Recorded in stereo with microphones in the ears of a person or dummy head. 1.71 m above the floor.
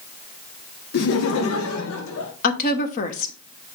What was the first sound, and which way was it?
Laughter, 50° left (ahead or behind).